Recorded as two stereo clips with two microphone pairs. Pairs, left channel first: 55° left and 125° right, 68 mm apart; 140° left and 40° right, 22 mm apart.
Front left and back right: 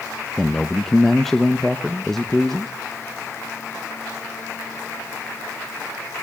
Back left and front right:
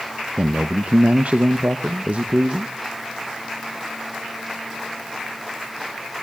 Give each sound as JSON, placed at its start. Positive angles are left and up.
{"t": 0.4, "sound": "a man speaking", "azimuth_deg": -35, "distance_m": 0.9}